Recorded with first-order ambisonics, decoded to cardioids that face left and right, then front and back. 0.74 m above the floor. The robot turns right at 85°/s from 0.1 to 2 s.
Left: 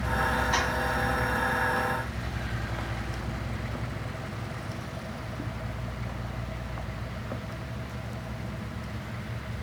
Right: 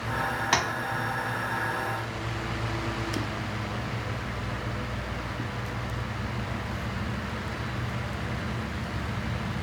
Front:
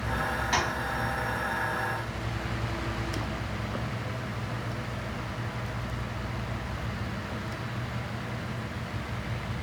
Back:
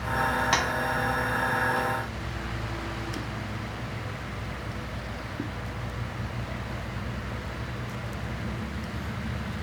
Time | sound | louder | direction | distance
0.5 | tapping | right 5 dB, even | 120° right | 0.5 m